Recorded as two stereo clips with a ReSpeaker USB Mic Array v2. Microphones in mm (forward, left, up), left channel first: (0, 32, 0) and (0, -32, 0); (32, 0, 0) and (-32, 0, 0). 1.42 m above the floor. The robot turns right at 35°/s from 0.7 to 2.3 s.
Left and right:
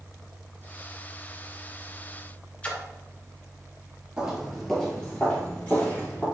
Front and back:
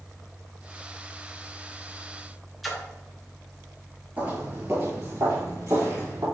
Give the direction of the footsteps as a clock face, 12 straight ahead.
5 o'clock.